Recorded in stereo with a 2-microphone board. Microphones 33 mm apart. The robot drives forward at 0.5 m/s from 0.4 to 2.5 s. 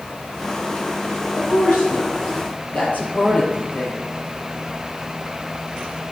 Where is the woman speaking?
70° left (ahead or behind), 5.5 m; by 4.1 s 65° left (ahead or behind), 6 m.